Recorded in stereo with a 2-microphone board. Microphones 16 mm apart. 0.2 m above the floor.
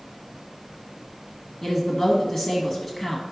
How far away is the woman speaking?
About 1.2 m.